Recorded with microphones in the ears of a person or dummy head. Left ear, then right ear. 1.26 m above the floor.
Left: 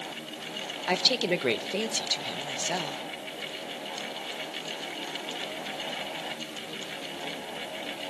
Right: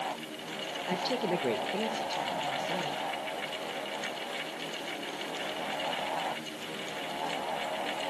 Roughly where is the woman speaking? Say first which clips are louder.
Left 7 dB; left.